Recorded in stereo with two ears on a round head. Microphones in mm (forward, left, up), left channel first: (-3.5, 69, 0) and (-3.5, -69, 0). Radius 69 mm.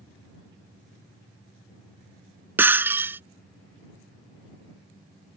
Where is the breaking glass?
15° right (ahead or behind).